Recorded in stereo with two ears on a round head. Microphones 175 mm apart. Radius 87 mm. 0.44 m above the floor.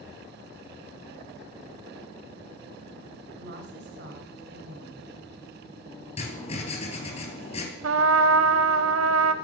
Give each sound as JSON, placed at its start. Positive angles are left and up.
{"t": 3.4, "sound": "a woman speaking", "side_deg": -60, "distance_m": 2.5}
{"t": 6.2, "sound": "writing", "side_deg": 35, "distance_m": 3.5}
{"t": 7.8, "sound": "a trumpet", "side_deg": -75, "distance_m": 0.8}